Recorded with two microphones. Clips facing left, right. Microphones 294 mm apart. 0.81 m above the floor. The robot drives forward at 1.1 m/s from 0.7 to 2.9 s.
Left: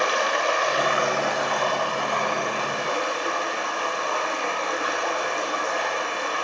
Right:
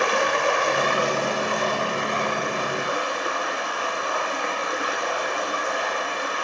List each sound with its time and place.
0.0 s running water: 60° right (ahead or behind), 1.0 m; by 6.4 s 15° right (ahead or behind), 3 m